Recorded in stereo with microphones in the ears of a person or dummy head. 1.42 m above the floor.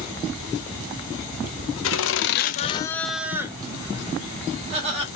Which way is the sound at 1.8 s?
70° left (ahead or behind).